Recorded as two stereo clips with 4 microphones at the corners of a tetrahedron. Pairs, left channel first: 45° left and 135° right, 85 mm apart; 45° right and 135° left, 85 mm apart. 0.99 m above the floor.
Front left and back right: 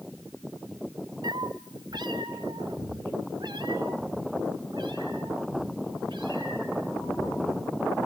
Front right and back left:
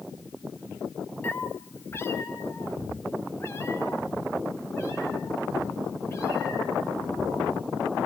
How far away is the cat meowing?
About 0.8 m.